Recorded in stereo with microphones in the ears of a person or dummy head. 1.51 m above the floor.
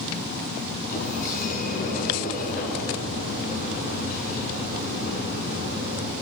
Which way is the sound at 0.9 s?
40° left (ahead or behind).